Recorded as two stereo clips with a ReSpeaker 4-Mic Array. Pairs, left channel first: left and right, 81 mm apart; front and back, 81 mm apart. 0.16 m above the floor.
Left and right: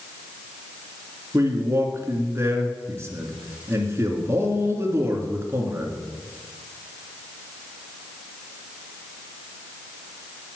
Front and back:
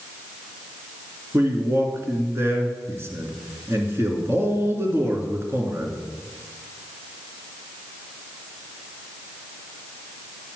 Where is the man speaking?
135° right, 2.5 m.